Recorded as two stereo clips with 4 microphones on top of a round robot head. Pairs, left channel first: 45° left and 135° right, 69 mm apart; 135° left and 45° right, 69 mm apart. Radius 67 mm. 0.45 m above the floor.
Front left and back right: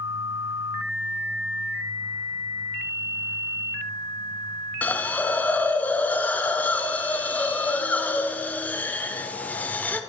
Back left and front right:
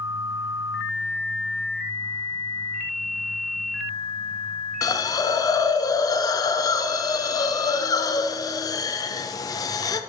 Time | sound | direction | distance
4.8 | a hiss | 110° left | 0.7 m